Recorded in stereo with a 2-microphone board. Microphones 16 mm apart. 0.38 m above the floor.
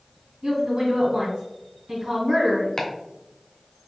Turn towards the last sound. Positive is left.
turn(degrees=40)  # may be behind; listen again after turning